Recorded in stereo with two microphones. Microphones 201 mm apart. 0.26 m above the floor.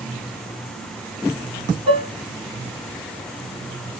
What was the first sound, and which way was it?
Dishes clattering, 30° right (ahead or behind).